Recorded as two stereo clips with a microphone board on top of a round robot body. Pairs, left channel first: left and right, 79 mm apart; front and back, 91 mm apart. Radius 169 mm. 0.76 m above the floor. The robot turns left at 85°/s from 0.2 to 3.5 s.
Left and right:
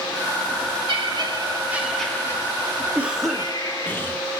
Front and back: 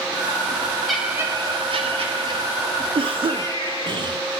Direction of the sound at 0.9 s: 90° right.